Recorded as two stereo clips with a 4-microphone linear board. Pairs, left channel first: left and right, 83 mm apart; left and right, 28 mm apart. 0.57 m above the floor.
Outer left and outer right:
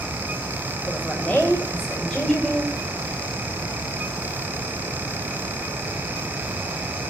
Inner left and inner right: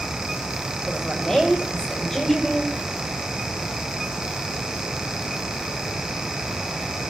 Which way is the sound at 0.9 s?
15° left (ahead or behind).